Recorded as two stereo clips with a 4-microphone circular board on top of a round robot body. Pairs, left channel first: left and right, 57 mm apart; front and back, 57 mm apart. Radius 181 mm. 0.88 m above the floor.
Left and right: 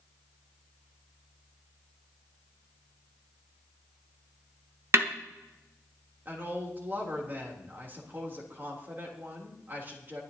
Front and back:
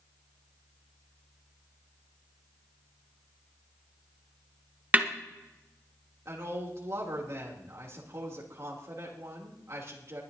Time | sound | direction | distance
4.9 | a snare drum | 120° right | 1.4 m
6.2 | a woman speaking | 140° right | 3 m